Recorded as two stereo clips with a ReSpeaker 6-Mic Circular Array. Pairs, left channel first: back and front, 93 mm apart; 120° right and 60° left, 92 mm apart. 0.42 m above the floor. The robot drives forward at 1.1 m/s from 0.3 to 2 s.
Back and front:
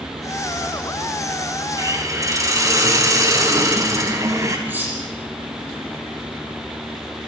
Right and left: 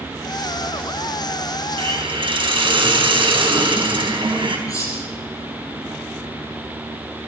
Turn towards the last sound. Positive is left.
turn(degrees=-70)